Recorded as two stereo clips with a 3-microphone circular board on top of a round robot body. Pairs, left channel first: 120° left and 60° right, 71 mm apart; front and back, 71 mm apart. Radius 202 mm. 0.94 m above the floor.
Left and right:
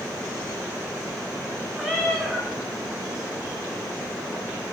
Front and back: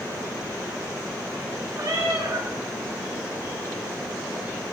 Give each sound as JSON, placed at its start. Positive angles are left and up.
{"t": 1.8, "sound": "a cat meowing", "azimuth_deg": -155, "distance_m": 2.0}